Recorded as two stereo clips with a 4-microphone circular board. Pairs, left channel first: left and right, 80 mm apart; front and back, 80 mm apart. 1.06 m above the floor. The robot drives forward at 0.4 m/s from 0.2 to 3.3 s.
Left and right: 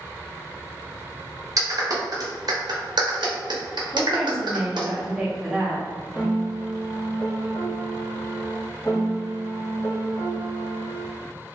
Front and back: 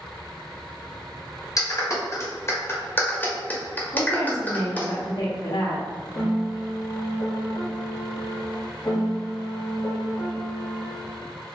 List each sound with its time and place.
1.6 s a clap: 45° right, 1.5 m; by 4.9 s 70° right, 1.1 m
3.9 s a woman speaking: 5° right, 1.8 m
6.2 s a piano: 25° left, 1.7 m